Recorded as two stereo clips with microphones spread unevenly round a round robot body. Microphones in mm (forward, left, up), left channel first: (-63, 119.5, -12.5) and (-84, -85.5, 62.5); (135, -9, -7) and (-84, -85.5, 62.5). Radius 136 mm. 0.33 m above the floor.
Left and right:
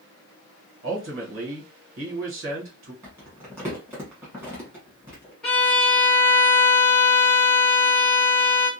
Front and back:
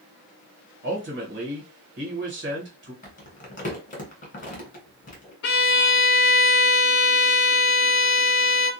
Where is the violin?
10° left, 0.7 m.